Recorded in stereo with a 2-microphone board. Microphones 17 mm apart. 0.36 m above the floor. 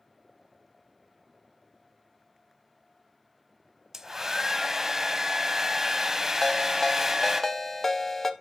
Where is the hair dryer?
25° right (ahead or behind), 0.8 m.